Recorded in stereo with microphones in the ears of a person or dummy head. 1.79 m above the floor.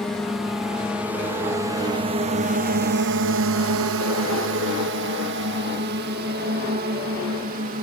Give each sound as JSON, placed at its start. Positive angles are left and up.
{"t": 0.0, "sound": "a drone", "side_deg": 5}